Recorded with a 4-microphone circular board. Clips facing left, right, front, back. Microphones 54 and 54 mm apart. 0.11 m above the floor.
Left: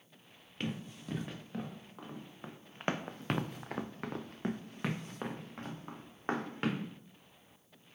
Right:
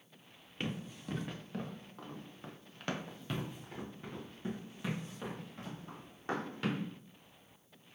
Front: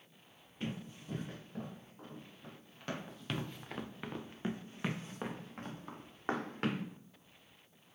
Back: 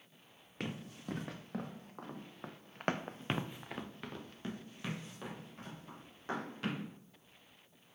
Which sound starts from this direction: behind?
Running footsteps, at 0.6 s.